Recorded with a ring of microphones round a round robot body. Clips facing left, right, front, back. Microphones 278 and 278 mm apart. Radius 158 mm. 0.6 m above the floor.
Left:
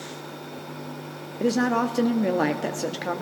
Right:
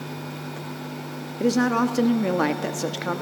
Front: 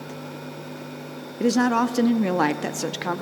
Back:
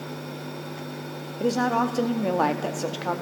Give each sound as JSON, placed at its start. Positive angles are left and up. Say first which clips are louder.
{"t": 1.4, "sound": "a woman speaking", "louder": "right 2 dB, front 4 dB", "azimuth_deg": -15, "distance_m": 0.9}